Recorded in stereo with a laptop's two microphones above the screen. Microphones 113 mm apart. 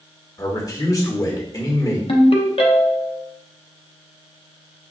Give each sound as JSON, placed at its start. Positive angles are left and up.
{"t": 0.4, "sound": "a man speaking", "side_deg": 30, "distance_m": 1.2}
{"t": 2.1, "sound": "a ringtone", "side_deg": 55, "distance_m": 0.6}